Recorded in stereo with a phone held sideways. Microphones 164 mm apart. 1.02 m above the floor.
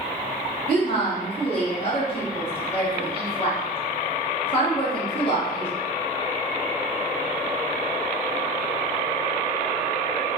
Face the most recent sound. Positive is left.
turn(degrees=35)  # may be behind; listen again after turning